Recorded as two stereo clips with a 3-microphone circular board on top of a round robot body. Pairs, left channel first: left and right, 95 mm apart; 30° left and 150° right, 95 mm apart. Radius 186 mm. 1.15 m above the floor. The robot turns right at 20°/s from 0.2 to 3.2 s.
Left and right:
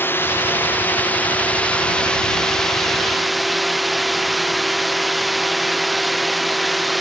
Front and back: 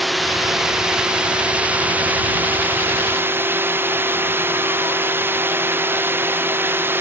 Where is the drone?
120° left; by 7.0 s straight behind.